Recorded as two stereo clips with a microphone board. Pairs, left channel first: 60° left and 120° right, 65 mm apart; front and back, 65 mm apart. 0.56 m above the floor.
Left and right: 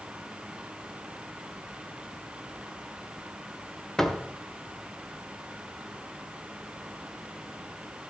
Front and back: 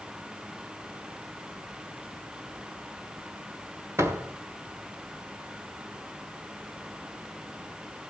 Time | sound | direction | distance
4.0 | a door slam | 140° left | 1.8 m